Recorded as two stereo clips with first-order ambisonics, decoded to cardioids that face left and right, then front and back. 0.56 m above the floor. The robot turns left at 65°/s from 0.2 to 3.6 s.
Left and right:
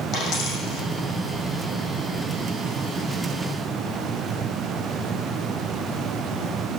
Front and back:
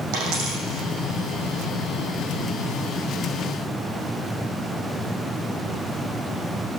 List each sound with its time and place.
0.1 s a dropped coin: 165° left, 6.5 m; by 0.8 s 125° left, 6.5 m